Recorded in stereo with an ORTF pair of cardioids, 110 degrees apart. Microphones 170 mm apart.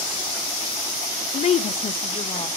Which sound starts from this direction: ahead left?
A woman speaking, at 1.3 s.